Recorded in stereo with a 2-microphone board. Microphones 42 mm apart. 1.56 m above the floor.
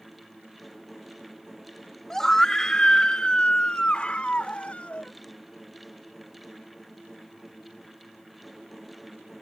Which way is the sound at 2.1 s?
10° left (ahead or behind).